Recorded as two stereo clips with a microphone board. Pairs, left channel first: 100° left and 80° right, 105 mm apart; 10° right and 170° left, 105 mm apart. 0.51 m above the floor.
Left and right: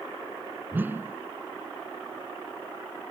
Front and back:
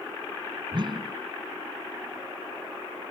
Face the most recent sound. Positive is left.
turn(degrees=-150)